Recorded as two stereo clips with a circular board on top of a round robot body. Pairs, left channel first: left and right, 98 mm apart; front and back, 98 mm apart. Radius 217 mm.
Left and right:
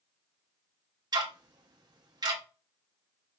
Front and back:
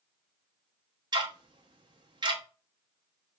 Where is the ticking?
135° right, 0.8 m.